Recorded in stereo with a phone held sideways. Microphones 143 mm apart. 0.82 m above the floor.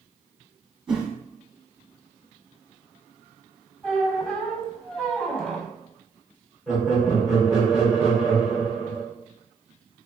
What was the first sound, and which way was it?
A whoosh, 5° right (ahead or behind).